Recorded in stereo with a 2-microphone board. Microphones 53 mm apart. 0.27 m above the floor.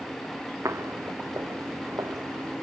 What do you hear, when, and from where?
0.7 s footsteps: 70° right (ahead or behind), 1.2 m; by 2.5 s 80° right, 2.5 m